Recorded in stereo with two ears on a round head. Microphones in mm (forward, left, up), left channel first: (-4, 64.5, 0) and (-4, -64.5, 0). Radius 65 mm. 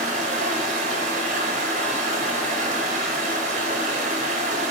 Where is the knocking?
No knocking in this recording.